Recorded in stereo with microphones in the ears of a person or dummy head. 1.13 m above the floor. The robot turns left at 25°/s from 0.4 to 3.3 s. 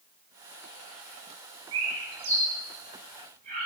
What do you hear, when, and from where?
1.7 s a bird: 80° right, 4.5 m; by 3.7 s 45° right (ahead or behind), 4.5 m